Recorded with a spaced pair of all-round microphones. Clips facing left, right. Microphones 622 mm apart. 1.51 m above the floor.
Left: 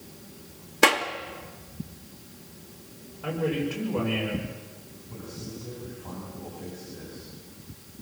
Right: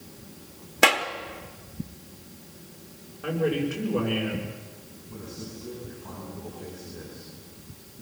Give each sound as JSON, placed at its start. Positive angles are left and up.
{"t": 0.8, "sound": "a clap", "side_deg": -10, "distance_m": 1.5}
{"t": 3.2, "sound": "a man speaking", "side_deg": 25, "distance_m": 6.5}
{"t": 5.1, "sound": "a man speaking", "side_deg": 65, "distance_m": 9.0}